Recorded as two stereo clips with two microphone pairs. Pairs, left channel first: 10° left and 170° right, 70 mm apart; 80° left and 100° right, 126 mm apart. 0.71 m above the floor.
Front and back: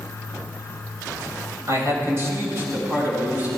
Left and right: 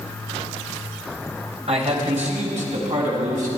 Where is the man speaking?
130° right, 3 m; by 3.5 s 105° right, 5 m.